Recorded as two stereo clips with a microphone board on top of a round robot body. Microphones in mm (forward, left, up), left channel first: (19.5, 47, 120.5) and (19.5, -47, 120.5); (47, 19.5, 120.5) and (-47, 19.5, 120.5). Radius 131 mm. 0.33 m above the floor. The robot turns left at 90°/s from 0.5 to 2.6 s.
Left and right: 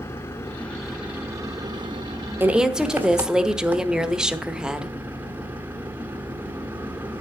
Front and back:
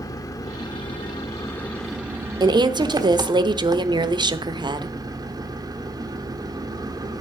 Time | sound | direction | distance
0.0 | an engine running | 35° left | 1.6 m
2.4 | a woman speaking | 155° right | 1.2 m